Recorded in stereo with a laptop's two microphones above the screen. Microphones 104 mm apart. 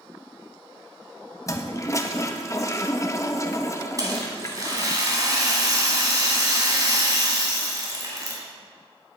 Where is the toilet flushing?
30° left (ahead or behind), 0.9 m.